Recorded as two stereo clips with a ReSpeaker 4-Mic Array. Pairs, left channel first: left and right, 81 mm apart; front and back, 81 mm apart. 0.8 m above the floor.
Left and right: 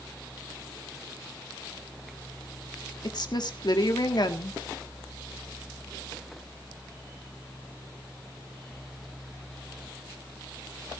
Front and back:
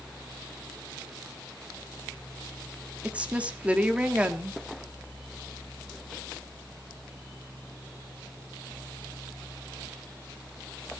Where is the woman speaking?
110° left, 1.7 m.